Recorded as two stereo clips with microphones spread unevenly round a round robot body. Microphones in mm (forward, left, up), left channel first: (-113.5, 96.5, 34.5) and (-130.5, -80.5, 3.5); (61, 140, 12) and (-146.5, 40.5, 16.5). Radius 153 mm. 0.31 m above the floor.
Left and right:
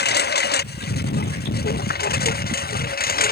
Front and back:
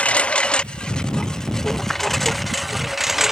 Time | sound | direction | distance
0.0 | a lawn mower | 110° left | ?